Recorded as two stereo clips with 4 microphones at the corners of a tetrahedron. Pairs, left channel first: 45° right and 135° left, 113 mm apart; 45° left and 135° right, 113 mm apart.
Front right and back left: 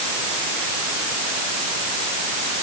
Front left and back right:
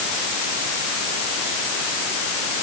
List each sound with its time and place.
Only background noise.